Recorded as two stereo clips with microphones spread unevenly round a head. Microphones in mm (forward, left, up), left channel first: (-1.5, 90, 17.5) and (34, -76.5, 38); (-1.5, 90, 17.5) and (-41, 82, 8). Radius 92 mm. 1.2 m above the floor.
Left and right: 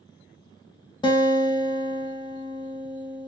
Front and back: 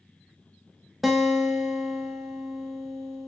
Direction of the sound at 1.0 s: 130° left.